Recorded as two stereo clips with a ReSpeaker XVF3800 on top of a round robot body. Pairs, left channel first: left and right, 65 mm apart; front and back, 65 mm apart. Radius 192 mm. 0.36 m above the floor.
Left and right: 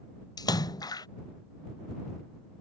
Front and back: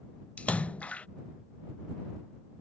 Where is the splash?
70° left.